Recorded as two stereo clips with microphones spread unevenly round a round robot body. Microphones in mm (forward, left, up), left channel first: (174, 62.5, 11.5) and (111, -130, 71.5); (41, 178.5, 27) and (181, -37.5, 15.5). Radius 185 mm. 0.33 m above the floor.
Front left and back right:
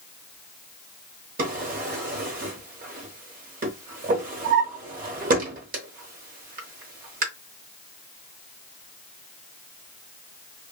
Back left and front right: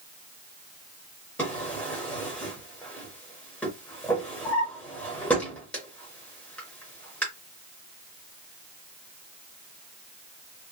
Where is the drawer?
150° right, 0.7 m.